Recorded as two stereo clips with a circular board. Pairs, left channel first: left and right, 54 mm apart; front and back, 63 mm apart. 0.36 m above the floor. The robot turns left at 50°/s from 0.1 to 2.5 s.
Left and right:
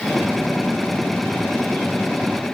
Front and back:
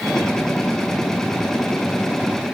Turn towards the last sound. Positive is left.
No sound to turn to.